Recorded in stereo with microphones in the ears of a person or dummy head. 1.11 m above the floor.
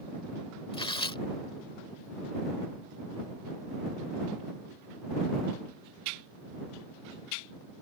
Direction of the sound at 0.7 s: 30° left (ahead or behind).